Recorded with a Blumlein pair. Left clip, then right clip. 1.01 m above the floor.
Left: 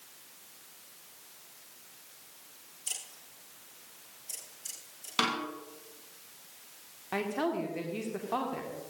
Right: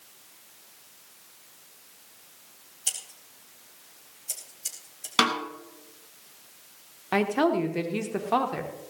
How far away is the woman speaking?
About 2 m.